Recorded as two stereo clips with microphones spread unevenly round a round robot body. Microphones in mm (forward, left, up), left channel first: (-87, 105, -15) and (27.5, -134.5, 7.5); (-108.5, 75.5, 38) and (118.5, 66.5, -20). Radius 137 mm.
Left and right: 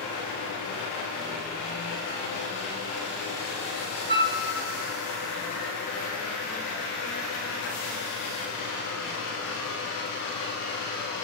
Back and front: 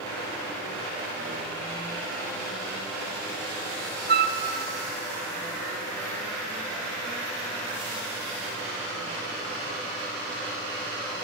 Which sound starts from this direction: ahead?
A flute, at 4.1 s.